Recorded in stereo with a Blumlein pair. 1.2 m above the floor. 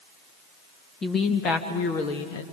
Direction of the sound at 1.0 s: 20° left.